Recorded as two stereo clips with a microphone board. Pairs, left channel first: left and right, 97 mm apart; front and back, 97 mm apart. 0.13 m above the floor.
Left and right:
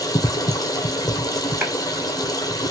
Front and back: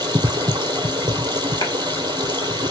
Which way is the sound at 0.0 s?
140° left.